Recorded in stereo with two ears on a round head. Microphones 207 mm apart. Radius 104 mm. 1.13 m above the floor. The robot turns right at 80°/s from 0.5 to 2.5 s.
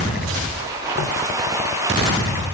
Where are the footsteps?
55° left (ahead or behind), 3.5 m; by 1.1 s 45° left (ahead or behind), 3.5 m.